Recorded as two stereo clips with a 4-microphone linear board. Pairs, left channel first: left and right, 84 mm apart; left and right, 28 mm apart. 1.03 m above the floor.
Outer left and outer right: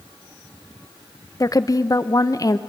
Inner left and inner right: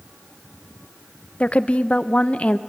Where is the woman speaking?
45° left (ahead or behind), 0.7 m.